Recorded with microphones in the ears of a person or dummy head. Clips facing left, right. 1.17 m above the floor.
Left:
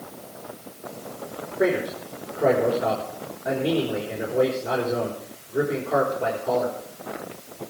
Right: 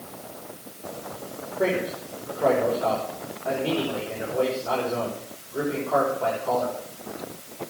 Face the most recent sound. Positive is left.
turn(degrees=25)  # may be behind; listen again after turning